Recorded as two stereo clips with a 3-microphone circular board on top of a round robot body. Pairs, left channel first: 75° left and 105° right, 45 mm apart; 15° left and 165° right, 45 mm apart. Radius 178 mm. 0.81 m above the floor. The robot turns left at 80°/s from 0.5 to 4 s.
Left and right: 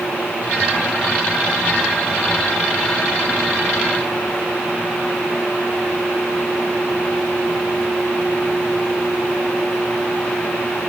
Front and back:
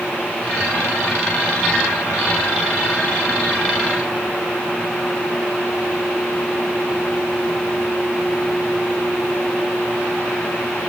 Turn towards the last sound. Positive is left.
No sound to turn to.